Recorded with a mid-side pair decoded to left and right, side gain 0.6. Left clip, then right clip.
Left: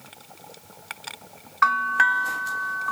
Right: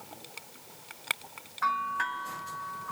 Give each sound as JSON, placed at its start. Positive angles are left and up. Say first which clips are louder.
{"t": 1.6, "sound": "a bell", "louder": "left 10 dB", "azimuth_deg": 60, "distance_m": 1.4}